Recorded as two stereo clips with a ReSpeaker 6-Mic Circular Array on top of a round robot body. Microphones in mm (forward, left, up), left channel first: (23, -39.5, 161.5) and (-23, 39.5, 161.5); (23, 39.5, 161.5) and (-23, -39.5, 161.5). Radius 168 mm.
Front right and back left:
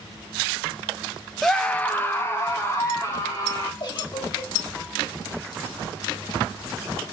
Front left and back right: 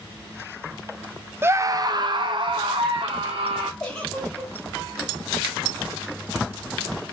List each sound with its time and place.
1.4 s a scream: 140° right, 0.6 m; by 3.7 s 115° right, 1.4 m
3.8 s a giggle: 20° right, 2.5 m